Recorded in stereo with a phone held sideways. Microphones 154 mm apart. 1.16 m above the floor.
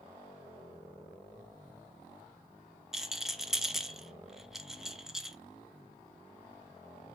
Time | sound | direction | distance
2.9 | a rattle | centre (ahead or behind) | 0.9 m